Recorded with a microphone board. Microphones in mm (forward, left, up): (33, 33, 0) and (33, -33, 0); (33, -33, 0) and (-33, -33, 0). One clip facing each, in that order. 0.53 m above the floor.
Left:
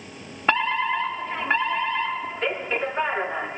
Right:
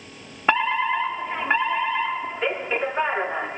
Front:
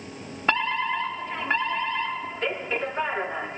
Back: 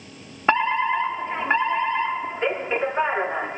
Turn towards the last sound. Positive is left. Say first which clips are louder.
# right 1 dB, back 5 dB
turn(degrees=-160)